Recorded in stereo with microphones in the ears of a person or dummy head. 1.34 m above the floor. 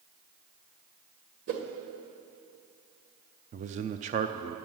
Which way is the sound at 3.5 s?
35° right (ahead or behind).